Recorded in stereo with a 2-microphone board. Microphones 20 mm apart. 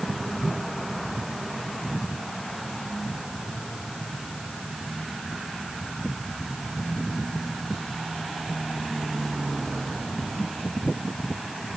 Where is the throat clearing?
I don't hear throat clearing.